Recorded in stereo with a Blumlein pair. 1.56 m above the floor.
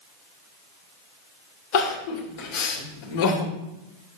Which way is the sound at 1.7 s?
45° left.